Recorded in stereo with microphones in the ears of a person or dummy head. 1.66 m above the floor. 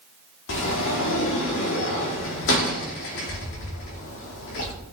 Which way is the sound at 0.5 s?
65° left (ahead or behind).